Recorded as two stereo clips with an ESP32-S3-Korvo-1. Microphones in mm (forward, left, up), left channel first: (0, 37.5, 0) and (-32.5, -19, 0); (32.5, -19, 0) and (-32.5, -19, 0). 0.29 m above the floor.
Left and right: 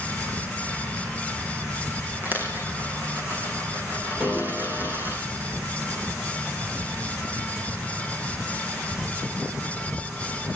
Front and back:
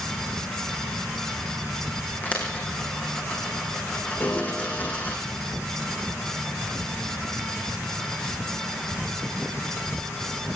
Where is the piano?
40° right, 7 m.